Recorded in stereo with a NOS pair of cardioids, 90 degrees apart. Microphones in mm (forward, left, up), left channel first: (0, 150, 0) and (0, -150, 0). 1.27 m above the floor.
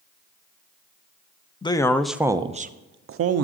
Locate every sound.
1.6 s a man speaking: 15° left, 0.8 m; by 3.4 s 55° right, 0.8 m